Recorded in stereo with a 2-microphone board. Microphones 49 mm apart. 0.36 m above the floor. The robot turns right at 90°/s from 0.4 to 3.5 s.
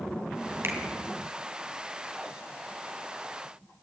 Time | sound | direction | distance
0.6 | a finger snap | 60° right (ahead or behind) | 2.5 m